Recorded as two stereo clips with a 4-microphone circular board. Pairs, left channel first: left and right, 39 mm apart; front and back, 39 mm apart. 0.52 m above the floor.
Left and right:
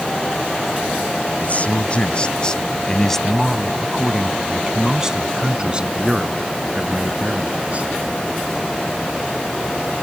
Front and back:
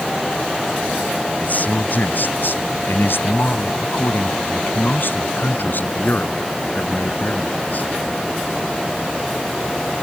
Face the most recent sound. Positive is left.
turn(degrees=-40)